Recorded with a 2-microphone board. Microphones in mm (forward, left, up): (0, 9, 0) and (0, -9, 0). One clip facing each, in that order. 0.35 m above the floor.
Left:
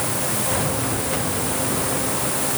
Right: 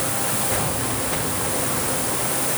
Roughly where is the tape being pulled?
I don't hear tape being pulled.